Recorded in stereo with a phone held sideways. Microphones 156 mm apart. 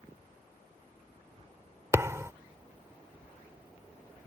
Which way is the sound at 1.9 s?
20° right (ahead or behind).